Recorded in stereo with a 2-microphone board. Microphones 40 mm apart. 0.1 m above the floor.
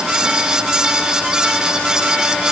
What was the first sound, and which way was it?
Only background noise.